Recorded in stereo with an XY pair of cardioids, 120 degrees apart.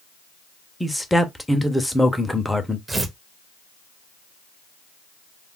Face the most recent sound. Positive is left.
turn(degrees=-15)